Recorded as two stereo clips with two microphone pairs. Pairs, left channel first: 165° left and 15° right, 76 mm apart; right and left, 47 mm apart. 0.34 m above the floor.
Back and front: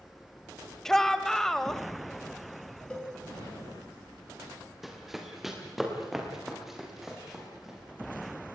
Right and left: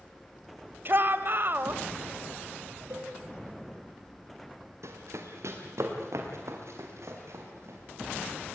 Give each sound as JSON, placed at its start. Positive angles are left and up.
{"t": 0.8, "sound": "a shout", "azimuth_deg": 85, "distance_m": 1.4}
{"t": 2.9, "sound": "a cowbell", "azimuth_deg": 90, "distance_m": 6.5}
{"t": 4.8, "sound": "running footsteps", "azimuth_deg": 75, "distance_m": 4.5}